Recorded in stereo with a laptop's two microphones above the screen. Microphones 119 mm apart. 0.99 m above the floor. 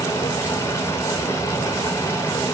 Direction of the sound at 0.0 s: 20° left (ahead or behind).